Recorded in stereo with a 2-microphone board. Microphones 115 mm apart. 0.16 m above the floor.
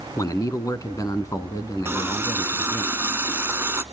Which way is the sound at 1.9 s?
20° right (ahead or behind).